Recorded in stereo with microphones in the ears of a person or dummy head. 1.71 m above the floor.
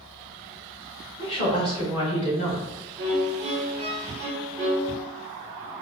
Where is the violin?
35° right (ahead or behind), 1.0 m.